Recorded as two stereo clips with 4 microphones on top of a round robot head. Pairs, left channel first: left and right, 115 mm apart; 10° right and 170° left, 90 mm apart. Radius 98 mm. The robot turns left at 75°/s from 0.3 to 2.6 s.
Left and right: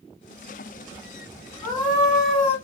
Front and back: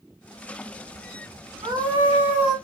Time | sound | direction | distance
1.6 | a scream | 150° left | 2 m